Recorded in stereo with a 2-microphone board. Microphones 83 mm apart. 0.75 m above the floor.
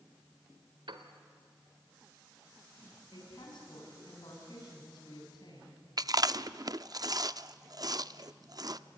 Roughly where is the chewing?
Right.